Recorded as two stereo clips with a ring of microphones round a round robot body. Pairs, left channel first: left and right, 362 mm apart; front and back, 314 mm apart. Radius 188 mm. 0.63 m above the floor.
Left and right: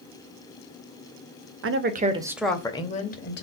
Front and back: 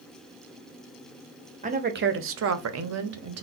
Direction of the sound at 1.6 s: 125° right.